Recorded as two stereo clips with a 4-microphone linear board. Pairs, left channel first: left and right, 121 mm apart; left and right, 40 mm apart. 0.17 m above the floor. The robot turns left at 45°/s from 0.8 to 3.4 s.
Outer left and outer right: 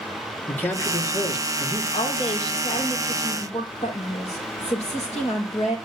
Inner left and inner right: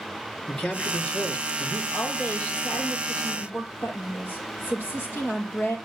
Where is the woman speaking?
135° left, 6 m; by 5.8 s 70° left, 6 m.